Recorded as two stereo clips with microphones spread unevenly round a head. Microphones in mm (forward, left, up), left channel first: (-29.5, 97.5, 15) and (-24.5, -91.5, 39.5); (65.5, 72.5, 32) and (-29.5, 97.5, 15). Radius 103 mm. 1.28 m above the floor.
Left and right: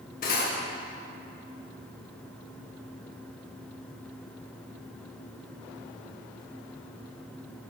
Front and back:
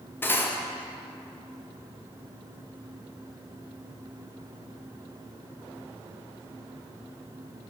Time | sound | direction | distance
0.2 | cutlery clinking | 45° left | 0.7 m